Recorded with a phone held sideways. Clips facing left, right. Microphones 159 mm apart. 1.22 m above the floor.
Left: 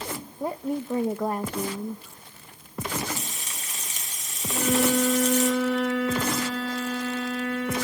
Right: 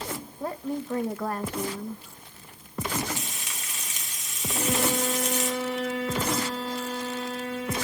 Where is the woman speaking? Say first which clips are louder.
Left 3 dB; 20° left (ahead or behind), 0.8 m.